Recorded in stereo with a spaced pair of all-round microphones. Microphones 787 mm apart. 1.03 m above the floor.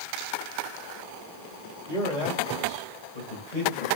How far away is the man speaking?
About 2.5 m.